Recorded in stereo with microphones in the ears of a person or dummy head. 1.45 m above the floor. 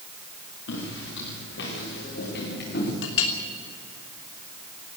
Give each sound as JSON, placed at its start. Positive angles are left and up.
{"t": 0.7, "sound": "footsteps", "side_deg": 75, "distance_m": 6.5}
{"t": 3.0, "sound": "a clink", "side_deg": 80, "distance_m": 3.0}